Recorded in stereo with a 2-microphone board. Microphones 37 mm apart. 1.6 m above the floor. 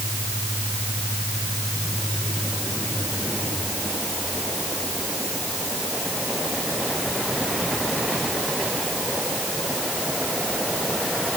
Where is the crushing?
No crushing in this recording.